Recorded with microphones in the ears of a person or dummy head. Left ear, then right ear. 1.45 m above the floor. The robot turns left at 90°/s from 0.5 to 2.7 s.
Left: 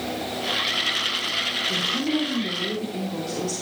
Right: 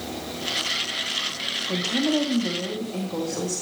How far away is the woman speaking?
About 1.2 m.